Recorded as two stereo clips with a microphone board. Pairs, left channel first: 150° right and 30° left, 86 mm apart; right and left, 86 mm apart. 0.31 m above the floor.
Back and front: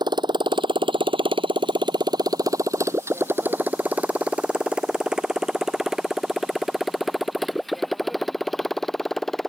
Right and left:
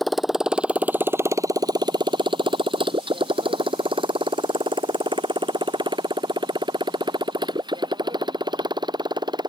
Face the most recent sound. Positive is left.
turn(degrees=125)